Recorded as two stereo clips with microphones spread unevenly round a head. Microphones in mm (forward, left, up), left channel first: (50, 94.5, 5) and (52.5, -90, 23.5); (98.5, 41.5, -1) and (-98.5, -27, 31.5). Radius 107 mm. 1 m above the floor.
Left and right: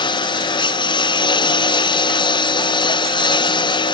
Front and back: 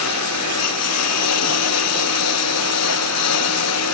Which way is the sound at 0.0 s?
25° left.